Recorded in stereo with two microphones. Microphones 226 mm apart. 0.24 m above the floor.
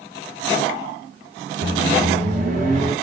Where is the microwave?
35° right (ahead or behind), 1.7 m.